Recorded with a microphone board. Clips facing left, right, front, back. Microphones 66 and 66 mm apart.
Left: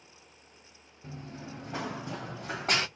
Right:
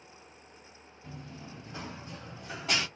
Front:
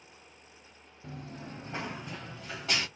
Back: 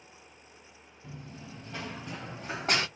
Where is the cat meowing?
No cat meowing in this recording.